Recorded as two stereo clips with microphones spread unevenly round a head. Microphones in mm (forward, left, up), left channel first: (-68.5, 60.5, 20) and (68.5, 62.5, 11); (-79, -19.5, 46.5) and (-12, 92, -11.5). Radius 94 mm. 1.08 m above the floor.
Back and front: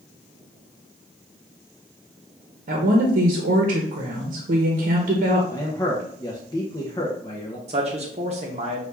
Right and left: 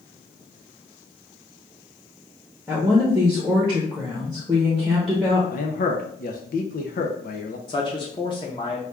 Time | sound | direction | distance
2.7 | a woman speaking | 10° right | 0.8 m
5.5 | a man speaking | 125° right | 0.6 m
7.7 | a man speaking | 50° right | 0.8 m